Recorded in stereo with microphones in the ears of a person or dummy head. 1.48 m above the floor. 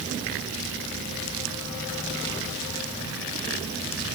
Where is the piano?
I don't hear a piano.